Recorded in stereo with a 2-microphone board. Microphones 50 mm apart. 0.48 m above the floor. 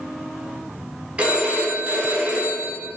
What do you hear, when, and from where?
1.2 s a phone ringing: 25° right (ahead or behind), 0.7 m